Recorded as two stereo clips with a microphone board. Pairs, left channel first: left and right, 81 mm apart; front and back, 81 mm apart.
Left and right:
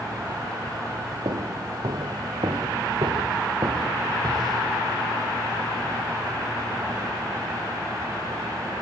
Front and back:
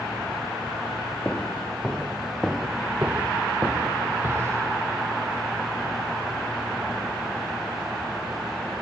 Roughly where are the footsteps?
Right.